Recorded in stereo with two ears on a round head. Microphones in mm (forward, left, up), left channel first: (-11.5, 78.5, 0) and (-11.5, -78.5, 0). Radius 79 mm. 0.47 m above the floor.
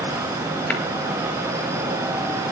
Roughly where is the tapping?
Centre.